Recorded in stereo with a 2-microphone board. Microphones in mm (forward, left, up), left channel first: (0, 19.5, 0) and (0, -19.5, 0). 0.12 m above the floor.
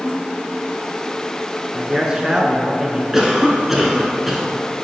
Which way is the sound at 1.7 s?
20° right (ahead or behind).